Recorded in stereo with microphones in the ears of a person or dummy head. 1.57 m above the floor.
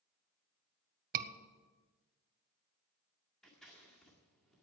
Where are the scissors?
Centre (ahead or behind), 2 m.